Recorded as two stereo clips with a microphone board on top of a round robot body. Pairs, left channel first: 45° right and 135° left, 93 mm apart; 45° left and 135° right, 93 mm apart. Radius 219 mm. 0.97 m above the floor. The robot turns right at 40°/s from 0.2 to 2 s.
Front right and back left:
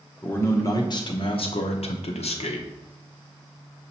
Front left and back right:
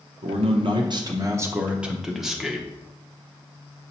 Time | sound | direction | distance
0.2 | a man speaking | 120° right | 0.8 m